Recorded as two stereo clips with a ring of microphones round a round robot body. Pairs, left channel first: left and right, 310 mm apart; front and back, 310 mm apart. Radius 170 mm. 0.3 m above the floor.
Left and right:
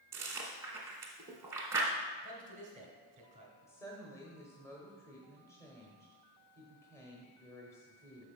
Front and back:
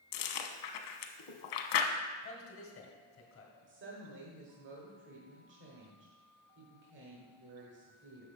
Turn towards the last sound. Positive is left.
turn(degrees=165)